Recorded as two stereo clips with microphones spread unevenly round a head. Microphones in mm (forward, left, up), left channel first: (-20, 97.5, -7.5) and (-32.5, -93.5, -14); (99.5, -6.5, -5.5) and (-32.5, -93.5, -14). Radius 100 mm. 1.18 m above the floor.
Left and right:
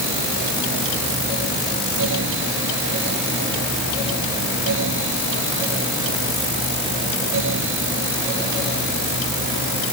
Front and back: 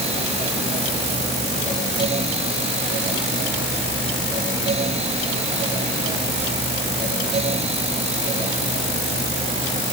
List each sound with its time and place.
Only background noise.